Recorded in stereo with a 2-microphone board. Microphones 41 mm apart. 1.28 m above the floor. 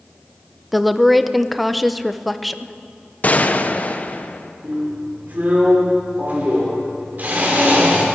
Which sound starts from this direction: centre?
A woman speaking, at 0.7 s.